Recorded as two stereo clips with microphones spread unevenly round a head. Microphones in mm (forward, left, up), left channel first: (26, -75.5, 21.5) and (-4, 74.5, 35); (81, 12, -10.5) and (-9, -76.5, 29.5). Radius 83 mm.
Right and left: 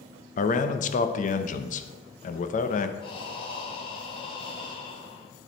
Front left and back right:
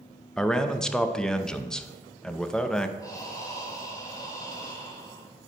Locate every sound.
0.4 s a man speaking: 40° right, 0.8 m
3.0 s breathing: 20° right, 2.5 m